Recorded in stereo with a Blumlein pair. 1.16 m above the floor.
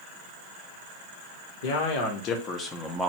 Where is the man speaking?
50° left, 1.0 m; by 3.1 s straight ahead, 0.6 m.